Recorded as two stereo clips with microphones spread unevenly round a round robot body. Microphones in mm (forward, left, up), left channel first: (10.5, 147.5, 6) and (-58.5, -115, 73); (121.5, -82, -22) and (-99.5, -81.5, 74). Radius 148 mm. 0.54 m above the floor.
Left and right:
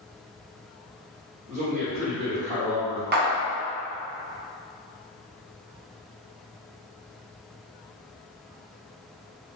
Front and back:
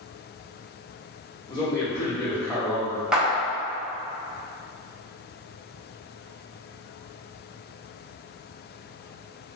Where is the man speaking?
30° right, 1.6 m; by 3.0 s 70° right, 1.6 m.